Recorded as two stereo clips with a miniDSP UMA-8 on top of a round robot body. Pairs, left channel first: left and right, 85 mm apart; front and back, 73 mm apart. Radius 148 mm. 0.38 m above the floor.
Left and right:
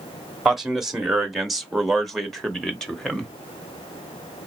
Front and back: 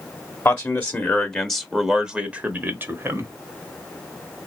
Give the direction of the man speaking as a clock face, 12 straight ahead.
12 o'clock.